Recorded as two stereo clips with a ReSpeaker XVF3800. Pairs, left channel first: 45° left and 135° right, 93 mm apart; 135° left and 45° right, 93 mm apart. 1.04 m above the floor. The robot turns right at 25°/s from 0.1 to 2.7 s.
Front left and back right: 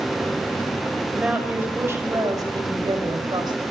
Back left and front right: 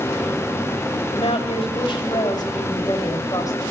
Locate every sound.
1.1 s a woman speaking: 145° left, 5.5 m; by 3.6 s 175° right, 5.5 m